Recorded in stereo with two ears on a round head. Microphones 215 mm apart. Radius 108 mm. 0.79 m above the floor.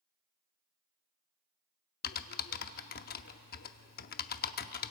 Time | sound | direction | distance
2.0 | typing on a keyboard | 40° left (ahead or behind) | 0.7 m